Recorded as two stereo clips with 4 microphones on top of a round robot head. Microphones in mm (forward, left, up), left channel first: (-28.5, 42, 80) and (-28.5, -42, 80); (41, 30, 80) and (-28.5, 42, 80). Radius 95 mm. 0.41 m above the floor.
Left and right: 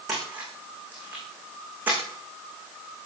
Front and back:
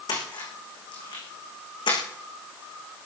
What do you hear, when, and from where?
0.1 s a splash: 15° right, 6.5 m